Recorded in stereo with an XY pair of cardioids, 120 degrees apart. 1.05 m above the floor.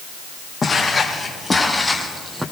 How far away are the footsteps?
About 3 m.